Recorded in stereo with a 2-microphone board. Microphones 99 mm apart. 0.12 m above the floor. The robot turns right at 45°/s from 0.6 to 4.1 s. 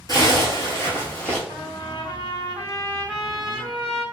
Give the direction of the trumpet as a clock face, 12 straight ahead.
9 o'clock.